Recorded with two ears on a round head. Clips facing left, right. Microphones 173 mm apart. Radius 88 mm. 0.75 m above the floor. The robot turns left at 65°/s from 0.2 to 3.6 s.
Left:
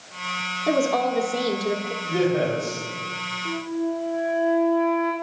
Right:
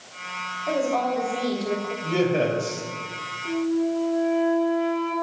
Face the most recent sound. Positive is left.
turn(degrees=15)  # may be behind; listen again after turning